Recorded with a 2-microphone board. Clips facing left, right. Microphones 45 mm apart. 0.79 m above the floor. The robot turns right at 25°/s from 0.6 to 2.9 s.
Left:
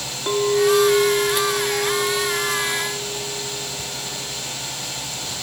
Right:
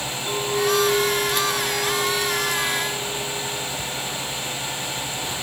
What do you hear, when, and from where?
0.3 s a clink: 95° left, 1.0 m; by 3.7 s 155° left, 1.0 m